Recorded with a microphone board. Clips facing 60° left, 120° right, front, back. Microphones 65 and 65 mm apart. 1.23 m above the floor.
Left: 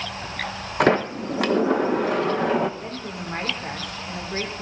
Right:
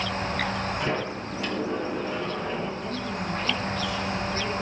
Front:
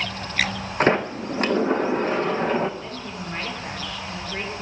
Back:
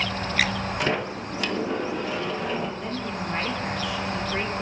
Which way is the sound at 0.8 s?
50° left.